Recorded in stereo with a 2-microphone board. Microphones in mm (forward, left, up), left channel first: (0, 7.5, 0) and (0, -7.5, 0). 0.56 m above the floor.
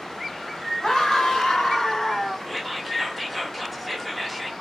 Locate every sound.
0.8 s a scream: 60° left (ahead or behind), 2 m; by 2.4 s 50° left (ahead or behind), 1.5 m
2.5 s whispering: centre (ahead or behind), 1.3 m